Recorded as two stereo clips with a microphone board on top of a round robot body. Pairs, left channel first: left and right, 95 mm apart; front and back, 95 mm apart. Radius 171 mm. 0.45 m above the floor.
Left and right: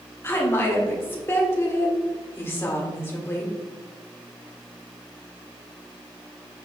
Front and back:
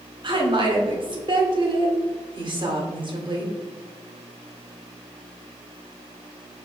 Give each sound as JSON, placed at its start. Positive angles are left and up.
{"t": 0.2, "sound": "a woman speaking", "azimuth_deg": 155, "distance_m": 2.0}